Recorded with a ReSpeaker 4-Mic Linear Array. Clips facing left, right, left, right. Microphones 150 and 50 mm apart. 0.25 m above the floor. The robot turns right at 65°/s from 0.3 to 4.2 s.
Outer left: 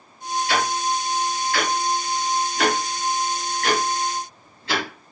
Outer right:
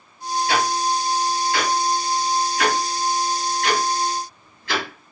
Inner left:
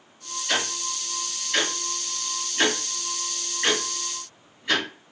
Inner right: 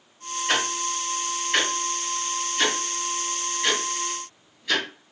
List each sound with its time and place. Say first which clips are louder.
0.5 s ticking: outer right 2 dB, inner right 2 dB; 50° right (ahead or behind), 1.1 m; by 4.9 s 30° left (ahead or behind), 1.1 m